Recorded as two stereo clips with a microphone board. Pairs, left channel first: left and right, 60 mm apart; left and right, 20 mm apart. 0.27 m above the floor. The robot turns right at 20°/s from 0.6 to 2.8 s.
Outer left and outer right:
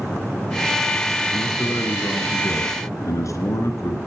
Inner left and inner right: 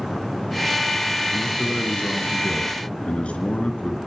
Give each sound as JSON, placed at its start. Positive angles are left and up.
{"t": 1.3, "sound": "a man speaking", "side_deg": 55, "distance_m": 3.5}